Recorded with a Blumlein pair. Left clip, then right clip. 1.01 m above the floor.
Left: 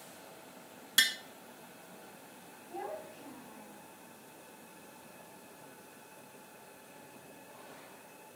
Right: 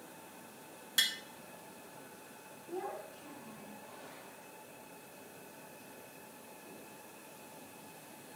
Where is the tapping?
20° left, 0.7 m.